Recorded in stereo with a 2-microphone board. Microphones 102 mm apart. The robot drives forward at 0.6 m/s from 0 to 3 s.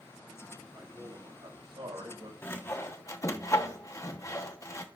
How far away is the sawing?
About 1.2 m.